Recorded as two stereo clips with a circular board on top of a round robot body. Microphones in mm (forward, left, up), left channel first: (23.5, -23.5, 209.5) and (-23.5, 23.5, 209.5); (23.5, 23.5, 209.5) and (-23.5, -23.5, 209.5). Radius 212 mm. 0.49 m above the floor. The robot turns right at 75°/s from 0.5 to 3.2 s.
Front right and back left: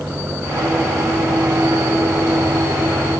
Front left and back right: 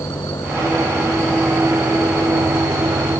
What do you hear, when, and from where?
0.0 s an engine running: 65° left; by 3.2 s 95° right